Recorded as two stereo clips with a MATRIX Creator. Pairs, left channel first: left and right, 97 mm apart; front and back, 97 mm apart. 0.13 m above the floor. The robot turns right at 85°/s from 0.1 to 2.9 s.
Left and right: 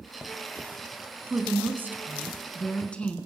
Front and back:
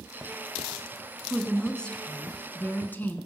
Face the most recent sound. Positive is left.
turn(degrees=30)